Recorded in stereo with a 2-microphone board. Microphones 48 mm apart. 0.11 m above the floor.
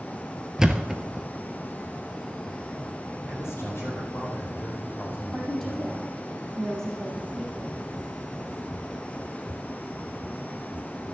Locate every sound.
0.6 s a thud: 15° right (ahead or behind), 0.9 m
3.3 s a man speaking: 60° left (ahead or behind), 4.5 m
5.3 s a woman speaking: 5° left (ahead or behind), 4.5 m